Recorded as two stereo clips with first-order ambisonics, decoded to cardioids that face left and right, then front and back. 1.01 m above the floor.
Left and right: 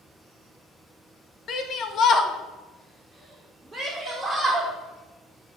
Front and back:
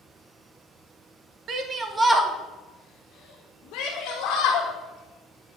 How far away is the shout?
About 1.1 m.